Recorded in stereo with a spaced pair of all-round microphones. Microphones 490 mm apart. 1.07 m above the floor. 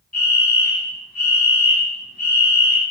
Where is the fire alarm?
30° left (ahead or behind), 8.5 m.